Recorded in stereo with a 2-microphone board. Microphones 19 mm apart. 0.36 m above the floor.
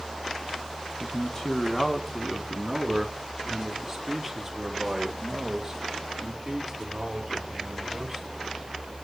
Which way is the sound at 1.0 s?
25° left (ahead or behind).